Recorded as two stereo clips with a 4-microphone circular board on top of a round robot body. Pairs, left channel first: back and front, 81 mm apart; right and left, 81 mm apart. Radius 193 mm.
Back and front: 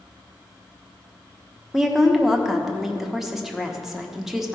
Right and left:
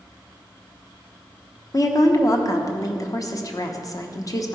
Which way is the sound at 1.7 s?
85° right.